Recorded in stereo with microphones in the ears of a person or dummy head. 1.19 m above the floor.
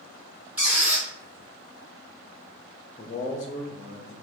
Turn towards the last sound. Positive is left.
turn(degrees=25)  # may be behind; listen again after turning